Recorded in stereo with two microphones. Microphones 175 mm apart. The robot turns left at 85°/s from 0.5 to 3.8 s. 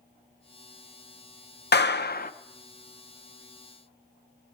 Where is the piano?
No piano in this recording.